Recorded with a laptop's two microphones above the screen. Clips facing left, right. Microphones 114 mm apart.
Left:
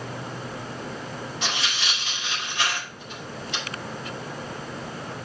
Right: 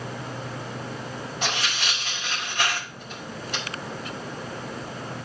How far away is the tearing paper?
About 5 m.